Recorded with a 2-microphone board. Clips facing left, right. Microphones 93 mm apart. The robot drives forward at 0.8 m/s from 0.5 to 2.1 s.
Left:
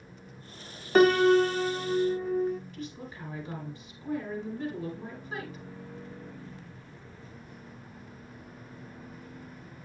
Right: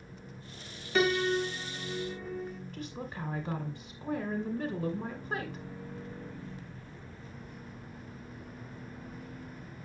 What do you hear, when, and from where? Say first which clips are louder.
0.9 s a piano: left 8 dB; 45° left (ahead or behind), 0.6 m
2.7 s a woman speaking: right 1 dB; 55° right (ahead or behind), 1.9 m